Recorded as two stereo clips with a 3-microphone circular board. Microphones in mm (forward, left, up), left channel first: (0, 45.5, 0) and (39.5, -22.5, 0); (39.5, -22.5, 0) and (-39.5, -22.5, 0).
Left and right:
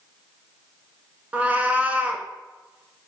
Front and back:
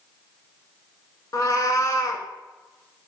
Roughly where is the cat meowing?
Ahead.